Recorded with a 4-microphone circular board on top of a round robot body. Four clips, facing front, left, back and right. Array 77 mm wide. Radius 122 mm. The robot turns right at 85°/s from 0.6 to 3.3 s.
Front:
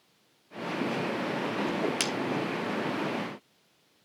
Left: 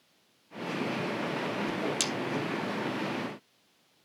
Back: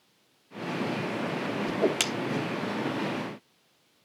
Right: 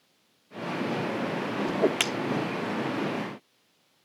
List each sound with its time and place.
1.7 s a whoosh: 130° right, 1.3 m; by 2.0 s 95° right, 1.3 m